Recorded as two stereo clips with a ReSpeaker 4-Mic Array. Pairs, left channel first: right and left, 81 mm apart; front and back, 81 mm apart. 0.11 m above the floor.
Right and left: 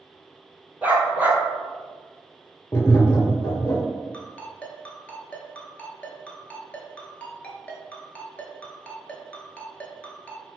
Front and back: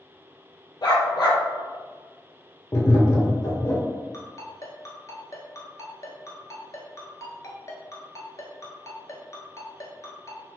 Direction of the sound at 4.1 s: 25° right.